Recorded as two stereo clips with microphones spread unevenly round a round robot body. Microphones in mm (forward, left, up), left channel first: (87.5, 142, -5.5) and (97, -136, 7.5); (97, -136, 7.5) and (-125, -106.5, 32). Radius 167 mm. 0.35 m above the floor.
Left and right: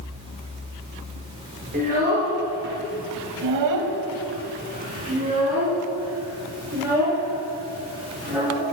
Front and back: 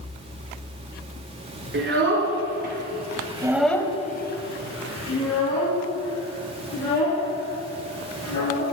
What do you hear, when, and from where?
1.7 s a child speaking: 155° right, 3.5 m; by 8.6 s 5° right, 7.5 m